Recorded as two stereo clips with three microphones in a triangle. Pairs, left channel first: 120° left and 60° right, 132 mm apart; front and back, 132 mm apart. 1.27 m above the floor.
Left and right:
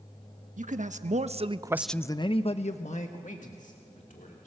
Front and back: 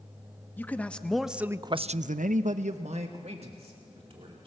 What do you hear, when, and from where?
0.6 s a man speaking: 75° right, 1.5 m; by 4.5 s 135° left, 3 m